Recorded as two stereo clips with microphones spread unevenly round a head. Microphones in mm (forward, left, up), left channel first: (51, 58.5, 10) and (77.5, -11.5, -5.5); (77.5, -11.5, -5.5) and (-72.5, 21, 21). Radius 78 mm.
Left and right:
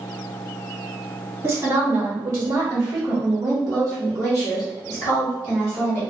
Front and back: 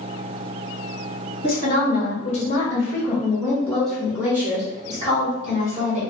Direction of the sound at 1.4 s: 30° right.